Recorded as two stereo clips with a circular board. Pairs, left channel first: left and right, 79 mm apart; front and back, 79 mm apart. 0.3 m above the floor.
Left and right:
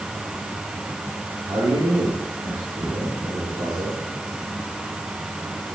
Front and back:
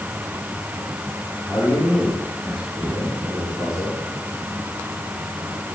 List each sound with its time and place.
1.5 s a man speaking: 90° right, 7.5 m; by 4.0 s 100° right, 8.5 m